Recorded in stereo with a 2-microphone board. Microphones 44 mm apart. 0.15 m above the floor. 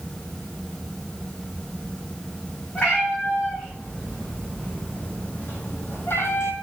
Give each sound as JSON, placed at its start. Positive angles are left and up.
{"t": 2.8, "sound": "a cat meowing", "side_deg": 35, "distance_m": 3.5}